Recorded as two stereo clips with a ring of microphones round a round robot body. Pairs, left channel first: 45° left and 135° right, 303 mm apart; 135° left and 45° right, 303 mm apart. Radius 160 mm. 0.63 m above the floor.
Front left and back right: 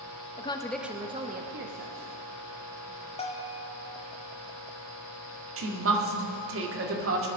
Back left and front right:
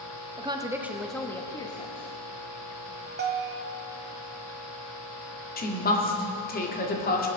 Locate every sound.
0.4 s a woman speaking: 5° left, 1.0 m; by 2.1 s 155° right, 1.4 m
3.2 s a bell: 15° right, 1.3 m
5.6 s a woman speaking: 170° right, 2.0 m